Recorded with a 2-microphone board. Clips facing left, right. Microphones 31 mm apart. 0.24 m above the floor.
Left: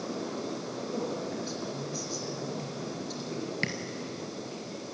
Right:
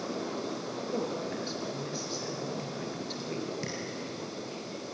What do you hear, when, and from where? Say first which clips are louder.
0.9 s a woman speaking: right 1 dB; 35° right (ahead or behind), 4 m
3.6 s tapping: left 6 dB; 65° left (ahead or behind), 2 m